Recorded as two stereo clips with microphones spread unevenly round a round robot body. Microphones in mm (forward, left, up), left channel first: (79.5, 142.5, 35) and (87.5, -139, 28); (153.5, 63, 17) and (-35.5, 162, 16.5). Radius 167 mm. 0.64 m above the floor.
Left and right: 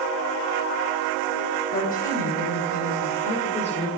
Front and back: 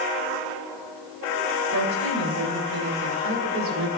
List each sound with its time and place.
1.7 s a woman speaking: 155° left, 3 m; by 3.9 s 165° left, 1.9 m